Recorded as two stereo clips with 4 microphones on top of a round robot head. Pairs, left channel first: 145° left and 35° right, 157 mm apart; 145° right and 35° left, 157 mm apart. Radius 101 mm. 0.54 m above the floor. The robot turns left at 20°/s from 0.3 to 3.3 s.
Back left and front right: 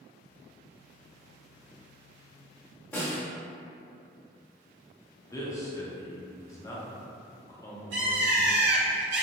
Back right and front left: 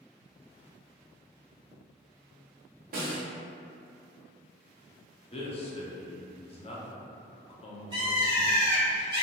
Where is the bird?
25° right, 0.7 m.